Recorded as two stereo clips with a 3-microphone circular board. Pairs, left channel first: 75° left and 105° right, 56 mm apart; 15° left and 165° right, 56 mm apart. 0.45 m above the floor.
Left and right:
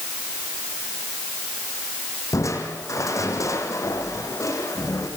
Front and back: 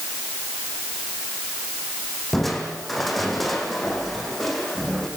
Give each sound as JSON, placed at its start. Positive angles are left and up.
{"t": 2.3, "sound": "crushing", "azimuth_deg": 100, "distance_m": 5.5}